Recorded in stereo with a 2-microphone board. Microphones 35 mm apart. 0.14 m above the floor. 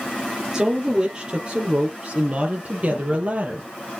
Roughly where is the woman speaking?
Right.